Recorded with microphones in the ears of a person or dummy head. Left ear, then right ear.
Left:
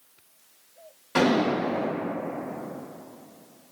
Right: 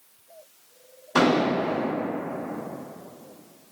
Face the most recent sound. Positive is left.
turn(degrees=20)  # may be behind; listen again after turning